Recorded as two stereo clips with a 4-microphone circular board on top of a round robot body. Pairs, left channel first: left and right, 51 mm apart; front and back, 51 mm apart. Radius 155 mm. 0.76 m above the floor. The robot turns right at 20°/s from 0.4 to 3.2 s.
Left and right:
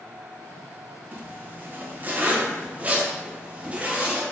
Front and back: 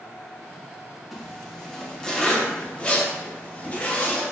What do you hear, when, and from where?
1.1 s a zipper: 85° right, 1.1 m; by 4.2 s 45° right, 1.1 m